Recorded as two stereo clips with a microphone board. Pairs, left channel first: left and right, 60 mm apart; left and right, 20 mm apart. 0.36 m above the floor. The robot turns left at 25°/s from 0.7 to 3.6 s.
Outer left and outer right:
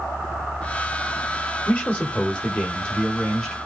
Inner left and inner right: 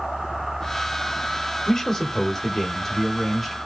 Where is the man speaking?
25° left (ahead or behind), 1.0 m; by 3.6 s 5° left (ahead or behind), 1.0 m.